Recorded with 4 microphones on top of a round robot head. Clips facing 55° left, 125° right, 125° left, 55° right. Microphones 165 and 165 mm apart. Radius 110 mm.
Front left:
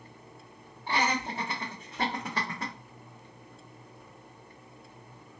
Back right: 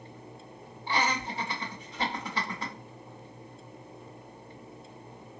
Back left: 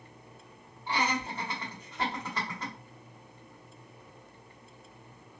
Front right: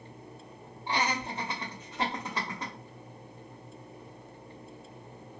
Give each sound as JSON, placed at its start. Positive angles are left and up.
{"t": 0.9, "sound": "laughter", "azimuth_deg": 20, "distance_m": 1.0}